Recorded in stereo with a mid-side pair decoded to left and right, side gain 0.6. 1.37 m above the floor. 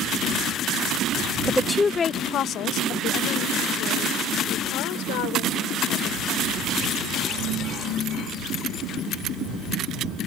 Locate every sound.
1.5 s a woman speaking: 10° right; by 6.7 s 80° left